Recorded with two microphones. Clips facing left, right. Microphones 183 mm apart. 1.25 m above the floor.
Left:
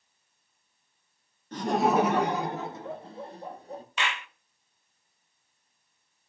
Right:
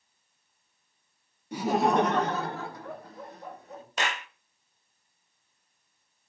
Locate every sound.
1.5 s laughter: 10° right (ahead or behind), 0.8 m; by 3.8 s 35° left (ahead or behind), 1.9 m
4.0 s a clap: 40° right (ahead or behind), 0.5 m